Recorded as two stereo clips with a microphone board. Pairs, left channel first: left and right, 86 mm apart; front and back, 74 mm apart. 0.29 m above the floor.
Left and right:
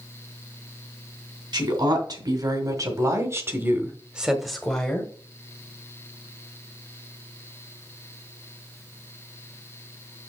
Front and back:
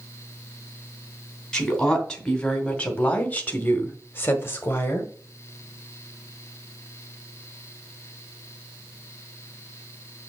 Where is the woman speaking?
80° right, 2.5 m; by 5.1 s 30° left, 1.7 m.